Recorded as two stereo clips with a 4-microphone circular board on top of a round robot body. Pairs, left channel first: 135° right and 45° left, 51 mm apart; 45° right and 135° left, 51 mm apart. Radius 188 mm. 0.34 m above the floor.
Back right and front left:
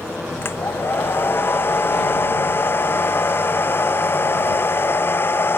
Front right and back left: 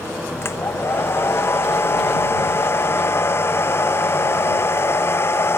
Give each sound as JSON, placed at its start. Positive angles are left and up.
{"t": 0.4, "sound": "a hair dryer", "azimuth_deg": -90}